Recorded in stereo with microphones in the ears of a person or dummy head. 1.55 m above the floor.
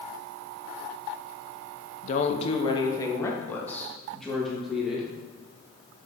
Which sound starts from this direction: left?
A woman speaking, at 2.0 s.